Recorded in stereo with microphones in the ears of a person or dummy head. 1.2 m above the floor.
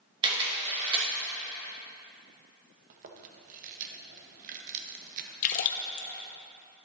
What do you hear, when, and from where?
0.2 s a camera shutter: 30° right (ahead or behind), 2.5 m
2.9 s chewing: 50° right (ahead or behind), 0.9 m
5.4 s a splash: 50° left (ahead or behind), 0.7 m